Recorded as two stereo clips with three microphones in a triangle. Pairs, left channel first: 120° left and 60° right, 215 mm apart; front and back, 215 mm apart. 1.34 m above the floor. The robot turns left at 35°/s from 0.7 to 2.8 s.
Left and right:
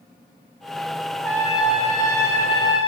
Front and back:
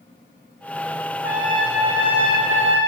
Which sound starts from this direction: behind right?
A trumpet, at 1.2 s.